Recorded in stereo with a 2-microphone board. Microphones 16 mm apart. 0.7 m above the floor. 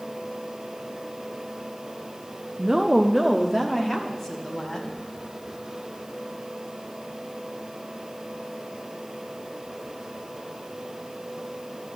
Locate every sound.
2.6 s a woman speaking: 35° right (ahead or behind), 0.8 m; by 4.9 s 40° left (ahead or behind), 2 m